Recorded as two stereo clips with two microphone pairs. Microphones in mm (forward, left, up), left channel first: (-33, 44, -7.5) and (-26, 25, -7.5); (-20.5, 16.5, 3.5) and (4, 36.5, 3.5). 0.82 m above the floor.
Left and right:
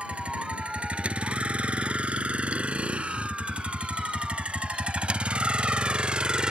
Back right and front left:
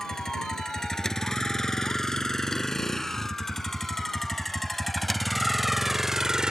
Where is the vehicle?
70° right; by 6.5 s 25° right.